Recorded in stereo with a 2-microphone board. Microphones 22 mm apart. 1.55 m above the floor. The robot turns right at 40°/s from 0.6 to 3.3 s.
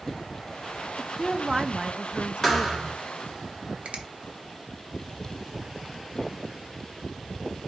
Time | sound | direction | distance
1.0 | a woman speaking | 170° left | 0.5 m
2.4 | a thud | 15° left (ahead or behind) | 1.4 m
3.9 | a finger snap | 65° right (ahead or behind) | 0.9 m